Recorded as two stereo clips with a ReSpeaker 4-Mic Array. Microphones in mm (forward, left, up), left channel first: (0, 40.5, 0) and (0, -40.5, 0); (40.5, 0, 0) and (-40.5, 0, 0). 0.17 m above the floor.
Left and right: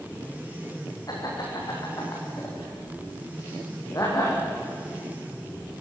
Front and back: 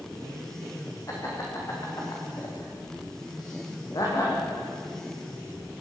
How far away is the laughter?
About 8.5 m.